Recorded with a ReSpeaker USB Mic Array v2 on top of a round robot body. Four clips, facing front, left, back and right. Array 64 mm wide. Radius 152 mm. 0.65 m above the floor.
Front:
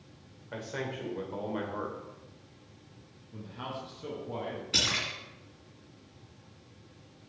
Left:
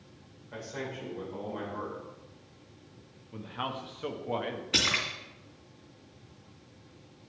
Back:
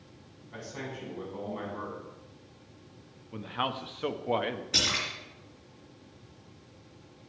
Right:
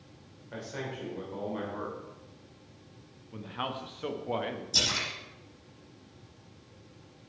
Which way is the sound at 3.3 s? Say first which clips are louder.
Even, back 7 dB; straight behind.